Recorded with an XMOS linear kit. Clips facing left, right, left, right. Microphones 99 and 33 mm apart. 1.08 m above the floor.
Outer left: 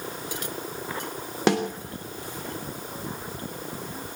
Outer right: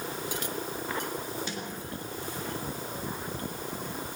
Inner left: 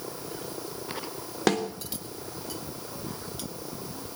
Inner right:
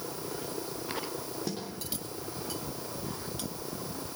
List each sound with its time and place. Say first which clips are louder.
1.5 s a snare drum: outer left 15 dB, inner left 15 dB; 85° left, 3 m